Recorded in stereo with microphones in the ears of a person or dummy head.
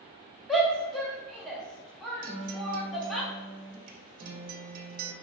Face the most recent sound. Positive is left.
turn(degrees=-45)  # may be behind; listen again after turning